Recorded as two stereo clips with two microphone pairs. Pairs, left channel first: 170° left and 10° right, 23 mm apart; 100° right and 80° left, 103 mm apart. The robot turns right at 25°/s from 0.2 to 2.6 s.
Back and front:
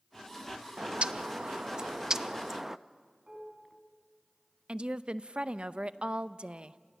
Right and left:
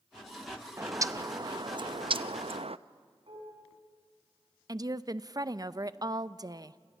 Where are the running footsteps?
No running footsteps in this recording.